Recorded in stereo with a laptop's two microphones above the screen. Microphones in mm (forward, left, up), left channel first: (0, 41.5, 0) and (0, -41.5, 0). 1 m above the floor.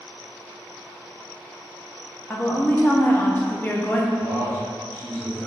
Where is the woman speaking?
20° left (ahead or behind), 0.8 m.